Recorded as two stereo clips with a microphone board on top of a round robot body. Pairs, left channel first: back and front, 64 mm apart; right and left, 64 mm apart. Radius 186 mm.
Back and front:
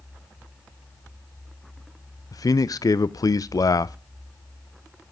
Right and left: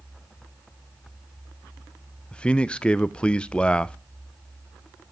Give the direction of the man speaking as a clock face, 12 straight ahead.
5 o'clock.